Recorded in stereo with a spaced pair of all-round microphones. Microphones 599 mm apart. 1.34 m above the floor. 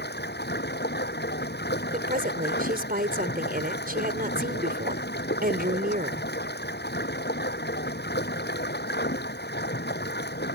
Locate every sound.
0.0 s running water: 15° left (ahead or behind)
1.9 s a woman speaking: 15° right (ahead or behind)